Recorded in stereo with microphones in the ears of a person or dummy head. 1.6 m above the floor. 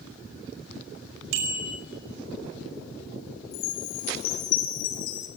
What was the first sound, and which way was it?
A bicycle bell, 75° right (ahead or behind).